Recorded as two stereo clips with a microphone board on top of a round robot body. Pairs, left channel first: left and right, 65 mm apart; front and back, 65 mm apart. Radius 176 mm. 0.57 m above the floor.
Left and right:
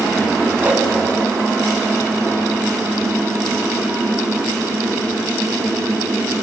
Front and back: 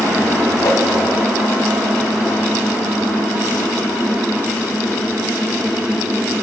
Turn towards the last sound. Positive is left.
turn(degrees=-25)